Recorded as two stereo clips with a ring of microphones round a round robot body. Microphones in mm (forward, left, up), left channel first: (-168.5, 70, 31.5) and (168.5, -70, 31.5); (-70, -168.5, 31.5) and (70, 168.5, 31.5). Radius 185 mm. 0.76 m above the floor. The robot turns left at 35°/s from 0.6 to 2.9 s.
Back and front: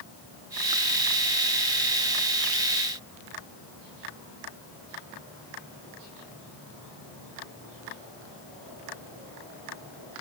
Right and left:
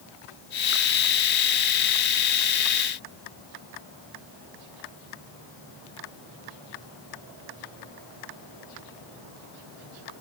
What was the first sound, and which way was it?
Only background noise.